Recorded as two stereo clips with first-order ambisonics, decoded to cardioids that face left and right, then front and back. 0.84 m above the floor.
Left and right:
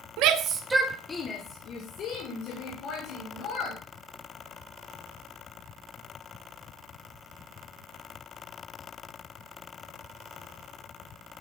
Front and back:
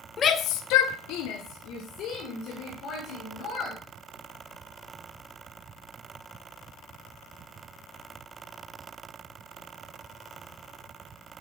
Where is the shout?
65° right, 0.8 m; by 3.8 s 50° left, 3.5 m.